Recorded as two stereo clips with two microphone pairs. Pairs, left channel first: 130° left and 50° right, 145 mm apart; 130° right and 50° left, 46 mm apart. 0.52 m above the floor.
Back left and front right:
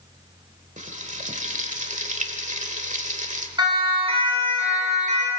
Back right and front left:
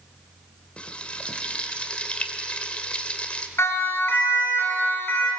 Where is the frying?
70° right, 1.8 m.